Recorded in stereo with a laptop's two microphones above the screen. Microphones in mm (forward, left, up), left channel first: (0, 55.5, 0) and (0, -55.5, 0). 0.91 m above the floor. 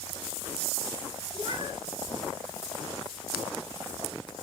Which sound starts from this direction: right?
A cat meowing, at 1.3 s.